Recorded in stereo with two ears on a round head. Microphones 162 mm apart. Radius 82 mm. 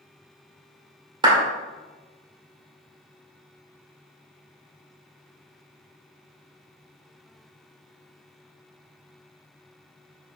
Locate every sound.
1.2 s a clap: 25° right (ahead or behind), 2 m